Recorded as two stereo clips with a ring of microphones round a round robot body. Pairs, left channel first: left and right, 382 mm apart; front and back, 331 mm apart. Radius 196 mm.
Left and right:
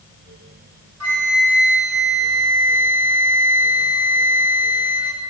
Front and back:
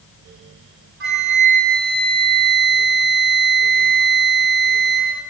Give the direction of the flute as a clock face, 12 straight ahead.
4 o'clock.